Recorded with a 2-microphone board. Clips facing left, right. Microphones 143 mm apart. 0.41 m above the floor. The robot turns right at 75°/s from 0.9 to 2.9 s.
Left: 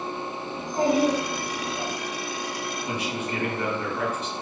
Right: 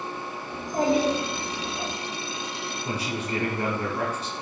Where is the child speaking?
45° right, 1.2 m; by 1.9 s 35° left, 1.2 m.